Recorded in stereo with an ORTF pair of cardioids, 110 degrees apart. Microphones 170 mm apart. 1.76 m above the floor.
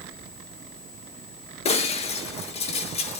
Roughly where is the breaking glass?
Ahead left.